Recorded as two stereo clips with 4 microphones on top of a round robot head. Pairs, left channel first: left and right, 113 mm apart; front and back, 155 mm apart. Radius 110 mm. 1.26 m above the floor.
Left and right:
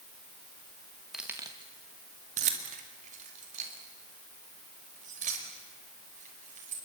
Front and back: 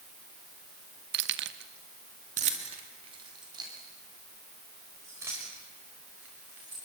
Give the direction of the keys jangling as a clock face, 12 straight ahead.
6 o'clock.